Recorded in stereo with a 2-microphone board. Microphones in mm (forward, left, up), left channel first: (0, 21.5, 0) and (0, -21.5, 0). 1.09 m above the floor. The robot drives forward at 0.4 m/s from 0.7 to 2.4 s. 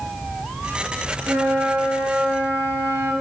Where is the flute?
70° right (ahead or behind), 4 m; by 3.1 s 65° right (ahead or behind), 4 m.